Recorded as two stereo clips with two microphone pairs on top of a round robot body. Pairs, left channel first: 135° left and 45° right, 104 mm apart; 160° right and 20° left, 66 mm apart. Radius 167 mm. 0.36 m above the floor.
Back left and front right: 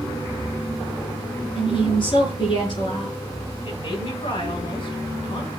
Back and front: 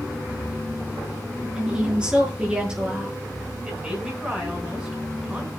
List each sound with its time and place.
1.6 s a woman speaking: 100° left, 7.5 m
3.6 s a woman speaking: 105° left, 6.5 m